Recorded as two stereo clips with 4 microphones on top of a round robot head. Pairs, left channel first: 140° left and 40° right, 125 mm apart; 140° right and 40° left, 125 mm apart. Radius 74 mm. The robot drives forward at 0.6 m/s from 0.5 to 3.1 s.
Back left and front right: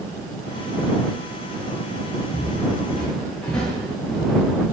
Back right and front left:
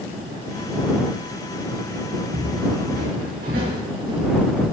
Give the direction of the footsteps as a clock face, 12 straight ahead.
10 o'clock.